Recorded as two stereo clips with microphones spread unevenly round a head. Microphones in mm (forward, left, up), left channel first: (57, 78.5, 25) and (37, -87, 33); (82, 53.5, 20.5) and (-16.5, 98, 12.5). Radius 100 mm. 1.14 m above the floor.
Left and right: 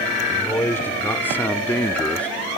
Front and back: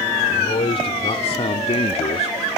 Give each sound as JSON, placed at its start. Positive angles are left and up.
{"t": 0.3, "sound": "a man speaking", "azimuth_deg": 5}